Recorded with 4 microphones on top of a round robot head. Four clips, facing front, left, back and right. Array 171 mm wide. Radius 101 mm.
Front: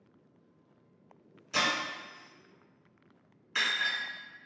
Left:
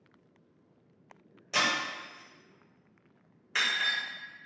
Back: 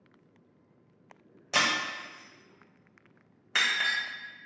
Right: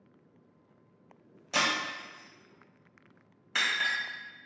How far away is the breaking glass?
About 1.2 m.